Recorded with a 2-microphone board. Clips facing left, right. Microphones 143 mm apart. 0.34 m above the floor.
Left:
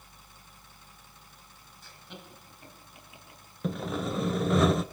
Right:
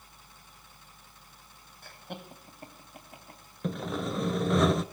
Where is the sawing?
Centre (ahead or behind), 0.7 m.